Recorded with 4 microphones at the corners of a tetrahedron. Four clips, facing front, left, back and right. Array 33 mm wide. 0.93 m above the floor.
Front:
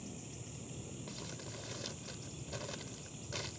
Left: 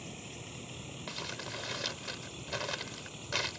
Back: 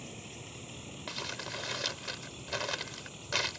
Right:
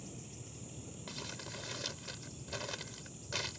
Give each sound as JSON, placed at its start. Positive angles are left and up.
{"t": 0.0, "sound": "a vehicle", "azimuth_deg": 130}
{"t": 1.1, "sound": "crumpling", "azimuth_deg": 150}